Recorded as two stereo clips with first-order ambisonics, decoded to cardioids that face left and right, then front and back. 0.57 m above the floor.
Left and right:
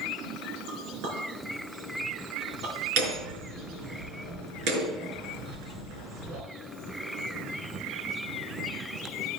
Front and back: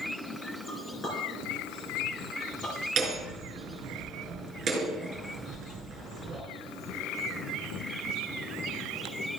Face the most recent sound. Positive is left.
turn(degrees=-120)